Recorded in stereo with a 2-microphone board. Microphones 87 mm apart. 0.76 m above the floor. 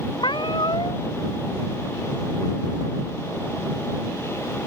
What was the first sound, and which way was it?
A cat meowing, 65° left (ahead or behind).